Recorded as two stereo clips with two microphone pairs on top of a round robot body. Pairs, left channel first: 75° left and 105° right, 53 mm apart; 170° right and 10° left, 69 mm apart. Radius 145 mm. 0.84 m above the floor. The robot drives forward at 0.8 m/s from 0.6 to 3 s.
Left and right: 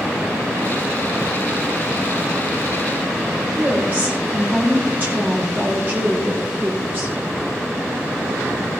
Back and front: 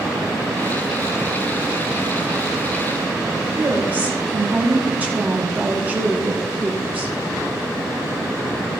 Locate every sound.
3.6 s a woman speaking: 55° right, 4.5 m